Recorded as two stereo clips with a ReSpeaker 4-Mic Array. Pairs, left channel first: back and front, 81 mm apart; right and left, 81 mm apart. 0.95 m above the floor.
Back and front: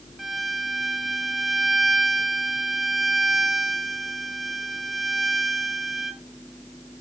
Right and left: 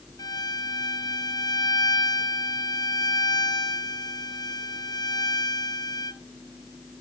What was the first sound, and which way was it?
A violin, 85° right.